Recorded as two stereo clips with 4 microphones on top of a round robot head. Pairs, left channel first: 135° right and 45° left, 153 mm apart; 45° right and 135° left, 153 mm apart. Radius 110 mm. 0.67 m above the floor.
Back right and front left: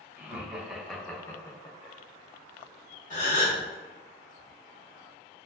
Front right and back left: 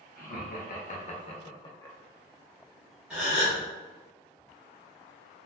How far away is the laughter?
About 1.1 m.